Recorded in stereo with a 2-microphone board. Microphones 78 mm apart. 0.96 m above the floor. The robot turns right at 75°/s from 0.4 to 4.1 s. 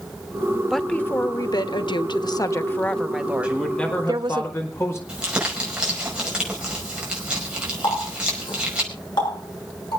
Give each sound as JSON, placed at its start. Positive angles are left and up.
{"t": 0.7, "sound": "a woman speaking", "azimuth_deg": 0, "distance_m": 1.1}
{"t": 3.4, "sound": "a man speaking", "azimuth_deg": -15, "distance_m": 4.5}
{"t": 5.1, "sound": "crumpling", "side_deg": -10, "distance_m": 5.0}
{"t": 7.8, "sound": "a running tap", "side_deg": 65, "distance_m": 8.0}